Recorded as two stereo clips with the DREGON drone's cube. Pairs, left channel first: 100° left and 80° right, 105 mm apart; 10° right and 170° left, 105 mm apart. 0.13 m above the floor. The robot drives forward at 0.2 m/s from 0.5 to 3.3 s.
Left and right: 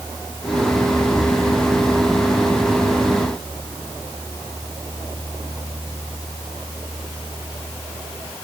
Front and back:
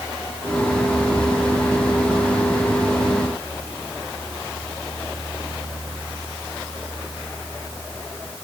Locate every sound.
Only background noise.